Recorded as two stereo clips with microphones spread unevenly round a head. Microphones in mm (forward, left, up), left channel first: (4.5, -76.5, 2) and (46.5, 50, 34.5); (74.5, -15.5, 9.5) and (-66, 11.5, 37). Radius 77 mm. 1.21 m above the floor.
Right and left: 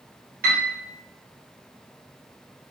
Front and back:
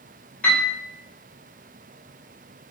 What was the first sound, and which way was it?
A piano, 60° left.